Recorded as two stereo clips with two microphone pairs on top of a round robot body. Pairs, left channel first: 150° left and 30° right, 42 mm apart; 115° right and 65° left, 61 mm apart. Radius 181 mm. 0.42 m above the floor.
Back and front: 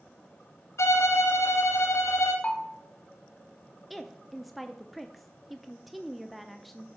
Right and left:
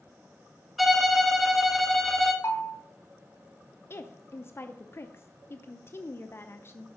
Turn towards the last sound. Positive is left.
turn(degrees=-105)